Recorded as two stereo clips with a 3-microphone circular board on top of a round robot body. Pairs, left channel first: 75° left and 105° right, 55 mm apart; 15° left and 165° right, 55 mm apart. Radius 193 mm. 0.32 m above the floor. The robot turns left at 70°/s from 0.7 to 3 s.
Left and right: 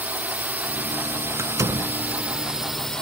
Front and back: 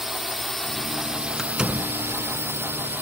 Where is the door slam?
75° right; by 1.9 s 115° right.